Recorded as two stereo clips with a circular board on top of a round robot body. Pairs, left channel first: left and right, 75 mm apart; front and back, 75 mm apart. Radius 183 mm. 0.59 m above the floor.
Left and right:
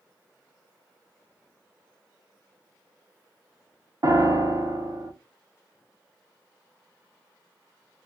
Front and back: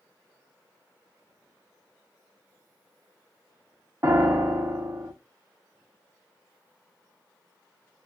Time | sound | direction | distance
4.0 | a piano | 125° right | 0.8 m